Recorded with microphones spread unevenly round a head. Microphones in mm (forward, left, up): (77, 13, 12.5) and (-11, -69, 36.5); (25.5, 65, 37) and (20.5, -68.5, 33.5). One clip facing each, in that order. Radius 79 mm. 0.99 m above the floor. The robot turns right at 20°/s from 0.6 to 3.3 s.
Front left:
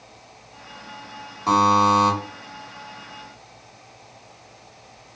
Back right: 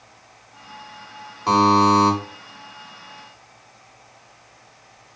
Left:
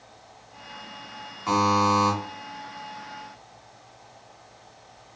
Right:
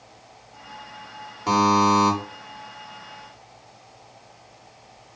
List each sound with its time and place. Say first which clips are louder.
1.5 s a buzzer: back right 2 dB, right 3 dB; 45° right, 1.8 m; by 2.1 s 30° right, 1.8 m